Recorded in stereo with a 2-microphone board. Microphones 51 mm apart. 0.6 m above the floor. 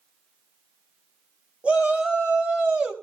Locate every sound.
1.6 s a shout: 25° right (ahead or behind), 4 m; by 2.9 s 20° right (ahead or behind), 3.5 m